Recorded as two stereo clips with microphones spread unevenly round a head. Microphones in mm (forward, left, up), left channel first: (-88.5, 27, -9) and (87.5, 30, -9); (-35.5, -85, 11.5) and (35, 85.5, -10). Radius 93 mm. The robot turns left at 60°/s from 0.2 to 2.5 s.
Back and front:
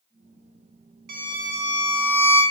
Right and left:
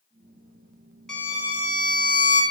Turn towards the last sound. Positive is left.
turn(degrees=-115)